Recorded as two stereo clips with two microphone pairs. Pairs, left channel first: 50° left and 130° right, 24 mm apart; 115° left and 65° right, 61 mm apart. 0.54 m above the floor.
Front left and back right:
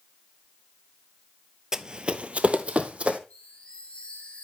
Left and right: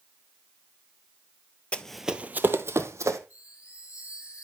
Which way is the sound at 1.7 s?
175° left.